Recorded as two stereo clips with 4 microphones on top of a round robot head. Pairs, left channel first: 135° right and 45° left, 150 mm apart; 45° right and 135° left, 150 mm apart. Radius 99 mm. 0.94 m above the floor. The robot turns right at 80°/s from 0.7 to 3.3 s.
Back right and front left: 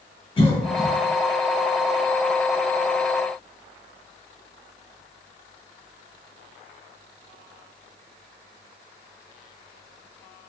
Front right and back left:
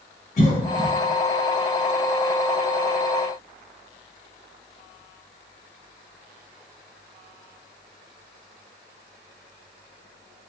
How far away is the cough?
About 1.1 m.